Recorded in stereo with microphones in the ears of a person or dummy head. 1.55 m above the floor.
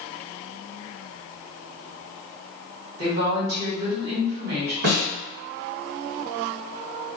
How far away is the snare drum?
About 1.5 m.